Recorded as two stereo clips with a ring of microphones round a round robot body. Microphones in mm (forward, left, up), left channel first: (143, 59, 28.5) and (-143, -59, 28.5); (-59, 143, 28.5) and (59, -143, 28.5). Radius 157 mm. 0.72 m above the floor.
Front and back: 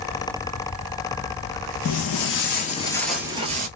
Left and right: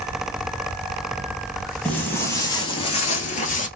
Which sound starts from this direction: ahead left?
Footsteps, at 1.9 s.